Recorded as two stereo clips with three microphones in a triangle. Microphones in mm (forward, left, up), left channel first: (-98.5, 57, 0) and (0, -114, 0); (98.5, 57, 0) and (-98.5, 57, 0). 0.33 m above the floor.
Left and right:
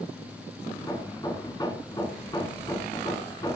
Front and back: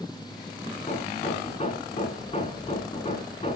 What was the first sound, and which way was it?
Hammering, 55° left.